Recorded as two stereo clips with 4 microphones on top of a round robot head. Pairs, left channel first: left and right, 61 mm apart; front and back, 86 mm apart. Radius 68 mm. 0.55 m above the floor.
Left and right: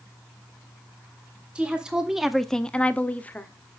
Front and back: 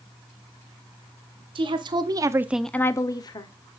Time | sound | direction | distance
1.6 | a woman speaking | 165° right | 1.6 m